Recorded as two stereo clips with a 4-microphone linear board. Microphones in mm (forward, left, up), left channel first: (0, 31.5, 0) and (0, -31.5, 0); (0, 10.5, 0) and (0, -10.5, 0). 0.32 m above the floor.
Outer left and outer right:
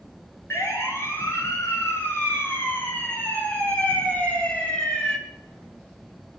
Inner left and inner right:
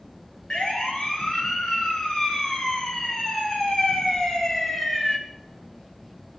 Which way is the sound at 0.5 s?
45° left (ahead or behind).